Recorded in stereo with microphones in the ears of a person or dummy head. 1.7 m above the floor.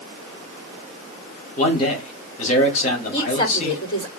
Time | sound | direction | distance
1.6 | a man speaking | 40° left (ahead or behind) | 4 m
3.1 | a woman speaking | 30° left (ahead or behind) | 5 m